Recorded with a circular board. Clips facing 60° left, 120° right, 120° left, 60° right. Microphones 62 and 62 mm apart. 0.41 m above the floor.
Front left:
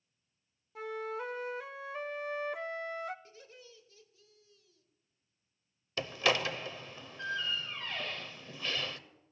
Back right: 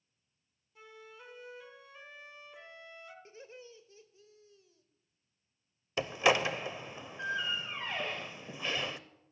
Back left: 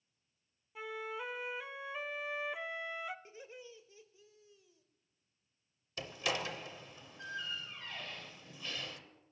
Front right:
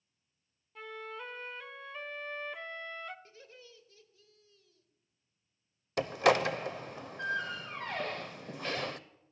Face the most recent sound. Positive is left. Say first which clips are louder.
# back right 3 dB, front right 12 dB
turn(degrees=-50)